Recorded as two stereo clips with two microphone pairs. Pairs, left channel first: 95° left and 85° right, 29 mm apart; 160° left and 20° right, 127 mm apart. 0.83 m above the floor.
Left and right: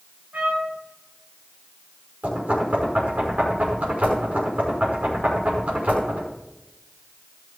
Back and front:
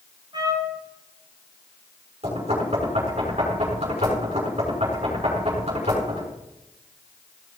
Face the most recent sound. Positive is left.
turn(degrees=-55)